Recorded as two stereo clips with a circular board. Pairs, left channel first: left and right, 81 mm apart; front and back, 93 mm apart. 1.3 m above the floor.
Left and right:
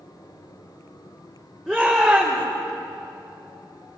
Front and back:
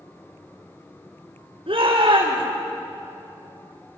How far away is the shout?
About 4.5 m.